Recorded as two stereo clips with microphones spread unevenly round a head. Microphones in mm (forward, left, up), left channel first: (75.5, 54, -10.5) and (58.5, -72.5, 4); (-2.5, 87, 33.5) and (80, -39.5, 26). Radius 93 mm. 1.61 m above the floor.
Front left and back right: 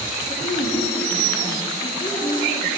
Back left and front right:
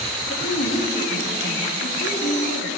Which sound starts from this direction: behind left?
A woman speaking, at 0.3 s.